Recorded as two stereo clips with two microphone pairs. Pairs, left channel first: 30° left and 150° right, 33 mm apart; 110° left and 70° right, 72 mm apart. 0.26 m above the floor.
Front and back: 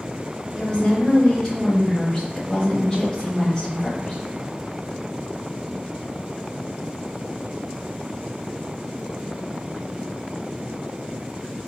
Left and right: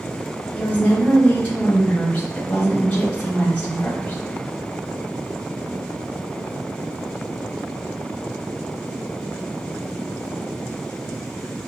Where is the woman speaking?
70° left, 1.2 m.